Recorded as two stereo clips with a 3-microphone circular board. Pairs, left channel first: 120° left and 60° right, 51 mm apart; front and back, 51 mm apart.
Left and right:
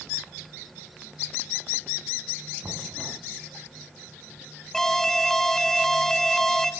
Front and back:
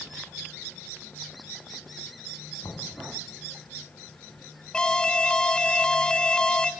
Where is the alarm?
50° left, 0.9 m.